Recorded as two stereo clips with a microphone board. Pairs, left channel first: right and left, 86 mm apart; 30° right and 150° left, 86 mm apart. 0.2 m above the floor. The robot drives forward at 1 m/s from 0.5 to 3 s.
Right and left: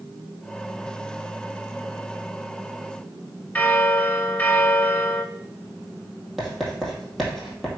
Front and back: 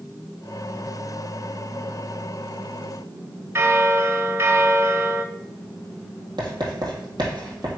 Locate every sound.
3.5 s a bell: 155° right, 0.8 m
6.4 s writing: straight behind, 3 m